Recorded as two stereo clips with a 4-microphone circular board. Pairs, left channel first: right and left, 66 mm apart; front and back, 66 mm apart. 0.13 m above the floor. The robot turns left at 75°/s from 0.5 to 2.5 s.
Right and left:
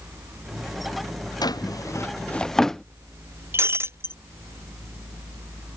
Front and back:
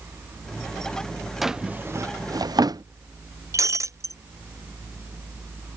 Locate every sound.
1.4 s a drawer: 90° right; by 2.8 s 175° right
3.5 s breaking glass: 140° left